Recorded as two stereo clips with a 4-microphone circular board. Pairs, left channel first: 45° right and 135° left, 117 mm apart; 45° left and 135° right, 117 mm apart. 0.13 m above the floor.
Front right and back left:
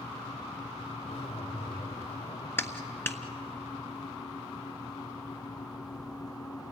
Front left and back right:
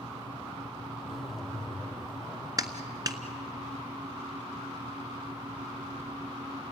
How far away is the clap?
About 1.4 m.